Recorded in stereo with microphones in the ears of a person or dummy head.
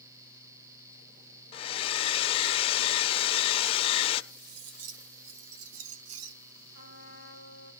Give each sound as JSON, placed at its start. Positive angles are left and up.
{"t": 1.5, "sound": "a hair dryer", "side_deg": 30, "distance_m": 0.8}
{"t": 4.3, "sound": "cutlery clinking", "side_deg": -75, "distance_m": 1.3}
{"t": 6.7, "sound": "a trumpet", "side_deg": -80, "distance_m": 6.5}